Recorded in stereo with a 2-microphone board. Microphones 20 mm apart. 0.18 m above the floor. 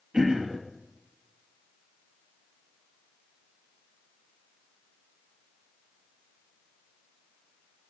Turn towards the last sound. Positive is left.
turn(degrees=-45)  # may be behind; listen again after turning